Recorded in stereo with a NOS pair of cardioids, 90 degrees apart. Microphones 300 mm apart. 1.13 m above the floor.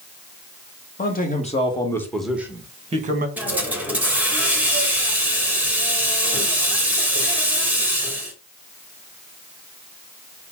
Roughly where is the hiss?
Ahead.